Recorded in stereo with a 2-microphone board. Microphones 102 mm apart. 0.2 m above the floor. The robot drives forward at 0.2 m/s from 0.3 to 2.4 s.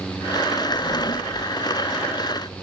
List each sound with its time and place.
0.7 s a drawer: 50° left (ahead or behind), 0.7 m; by 1.5 s 40° left (ahead or behind), 0.8 m